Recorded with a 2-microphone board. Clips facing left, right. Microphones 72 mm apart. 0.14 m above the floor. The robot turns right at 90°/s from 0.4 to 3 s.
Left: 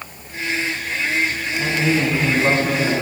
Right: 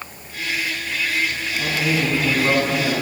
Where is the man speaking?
10° left (ahead or behind), 1.6 m.